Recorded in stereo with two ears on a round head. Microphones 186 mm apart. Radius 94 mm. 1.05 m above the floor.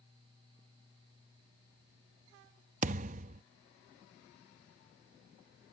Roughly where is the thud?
Right.